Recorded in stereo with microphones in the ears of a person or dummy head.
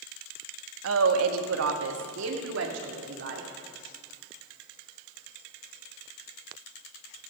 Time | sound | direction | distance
0.8 | a woman speaking | 85° right | 1.4 m